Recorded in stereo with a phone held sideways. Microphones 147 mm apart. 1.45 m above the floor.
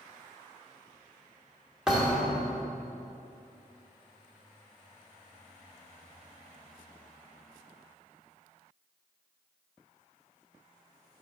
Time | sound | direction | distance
1.9 | a thud | 5° right (ahead or behind) | 1.3 m